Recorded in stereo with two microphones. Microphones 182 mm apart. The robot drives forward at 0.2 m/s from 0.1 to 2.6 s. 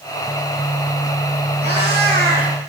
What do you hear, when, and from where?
1.6 s a cat meowing: 65° right (ahead or behind), 2.5 m; by 2.5 s 60° right (ahead or behind), 2.5 m